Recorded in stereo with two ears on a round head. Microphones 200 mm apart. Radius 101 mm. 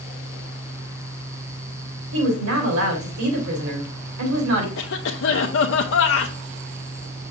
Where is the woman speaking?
65° right (ahead or behind), 3 m.